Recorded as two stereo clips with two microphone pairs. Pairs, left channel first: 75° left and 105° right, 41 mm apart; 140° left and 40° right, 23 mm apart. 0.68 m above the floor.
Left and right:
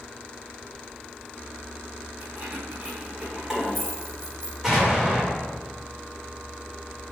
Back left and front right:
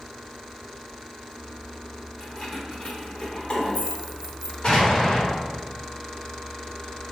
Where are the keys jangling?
150° right, 1.7 m; by 4.5 s 135° left, 1.1 m.